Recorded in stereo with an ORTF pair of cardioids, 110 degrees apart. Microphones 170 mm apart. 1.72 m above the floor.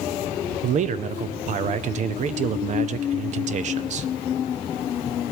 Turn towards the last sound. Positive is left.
turn(degrees=-45)